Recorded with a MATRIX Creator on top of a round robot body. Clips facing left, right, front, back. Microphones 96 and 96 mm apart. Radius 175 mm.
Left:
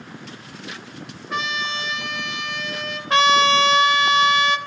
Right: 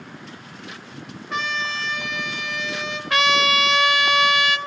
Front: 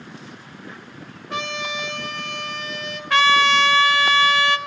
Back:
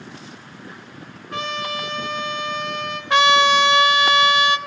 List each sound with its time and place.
1.3 s a trumpet: straight ahead, 1.5 m
3.1 s a trumpet: 125° left, 0.9 m